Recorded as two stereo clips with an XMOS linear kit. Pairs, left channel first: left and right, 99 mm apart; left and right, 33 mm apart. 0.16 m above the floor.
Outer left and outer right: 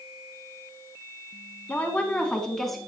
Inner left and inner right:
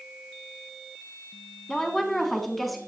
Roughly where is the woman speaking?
Centre.